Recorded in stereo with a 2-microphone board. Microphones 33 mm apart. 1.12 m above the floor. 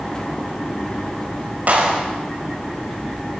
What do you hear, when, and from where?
1.7 s a clap: 50° right (ahead or behind), 6 m